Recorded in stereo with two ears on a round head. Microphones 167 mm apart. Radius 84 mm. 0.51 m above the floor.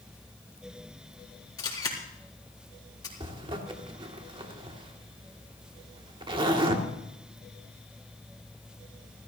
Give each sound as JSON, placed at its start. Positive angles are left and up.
{"t": 1.6, "sound": "a camera shutter", "side_deg": 20, "distance_m": 4.0}
{"t": 3.2, "sound": "a zipper", "side_deg": -30, "distance_m": 1.9}